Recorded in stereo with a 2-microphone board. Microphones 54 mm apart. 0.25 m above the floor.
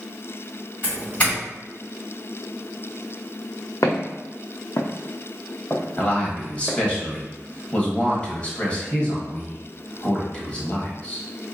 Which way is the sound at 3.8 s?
75° left (ahead or behind).